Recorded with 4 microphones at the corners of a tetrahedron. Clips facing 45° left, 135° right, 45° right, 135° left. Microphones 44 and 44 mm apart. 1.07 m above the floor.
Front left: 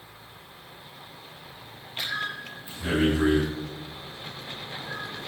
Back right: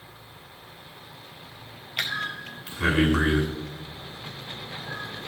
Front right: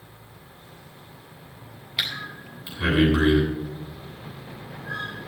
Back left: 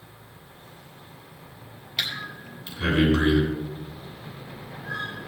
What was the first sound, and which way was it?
Breathing, 125° right.